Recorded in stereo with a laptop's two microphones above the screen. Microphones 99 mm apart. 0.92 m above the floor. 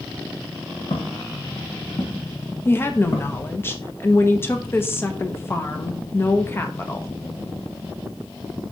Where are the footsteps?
60° left (ahead or behind), 3 m; by 3.4 s 25° left (ahead or behind), 3 m.